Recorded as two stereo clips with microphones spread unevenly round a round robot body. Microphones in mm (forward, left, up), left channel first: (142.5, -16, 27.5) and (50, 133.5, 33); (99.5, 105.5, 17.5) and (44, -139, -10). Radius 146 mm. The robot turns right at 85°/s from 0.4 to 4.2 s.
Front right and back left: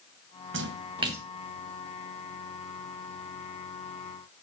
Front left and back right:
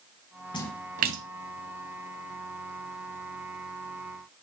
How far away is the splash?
About 0.5 m.